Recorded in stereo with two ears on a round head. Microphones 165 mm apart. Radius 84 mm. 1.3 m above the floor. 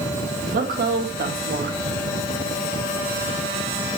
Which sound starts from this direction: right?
A woman speaking, at 0.5 s.